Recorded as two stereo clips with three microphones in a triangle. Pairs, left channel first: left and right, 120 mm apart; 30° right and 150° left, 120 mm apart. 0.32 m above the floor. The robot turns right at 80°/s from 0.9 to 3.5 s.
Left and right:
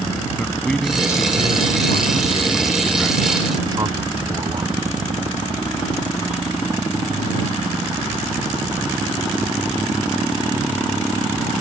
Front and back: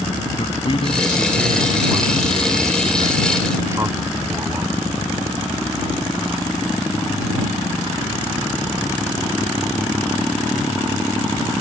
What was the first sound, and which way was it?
A man speaking, 5° left.